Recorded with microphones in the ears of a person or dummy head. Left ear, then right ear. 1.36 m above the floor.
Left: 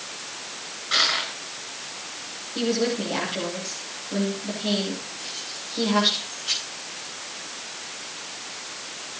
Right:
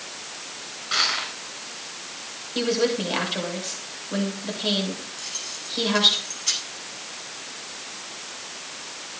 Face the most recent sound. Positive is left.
turn(degrees=-65)  # may be behind; listen again after turning